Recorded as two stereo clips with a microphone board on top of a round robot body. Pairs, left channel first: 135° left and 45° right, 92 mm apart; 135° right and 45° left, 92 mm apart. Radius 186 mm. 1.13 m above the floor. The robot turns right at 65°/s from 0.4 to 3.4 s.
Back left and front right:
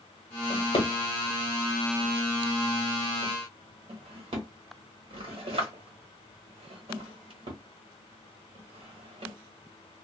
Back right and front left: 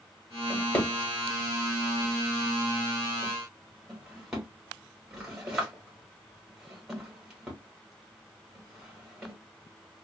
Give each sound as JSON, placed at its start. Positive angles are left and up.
{"t": 0.5, "sound": "a drawer", "azimuth_deg": 135, "distance_m": 1.1}